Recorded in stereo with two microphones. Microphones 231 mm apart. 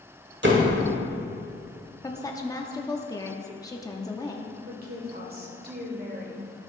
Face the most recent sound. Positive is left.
turn(degrees=-40)  # may be behind; listen again after turning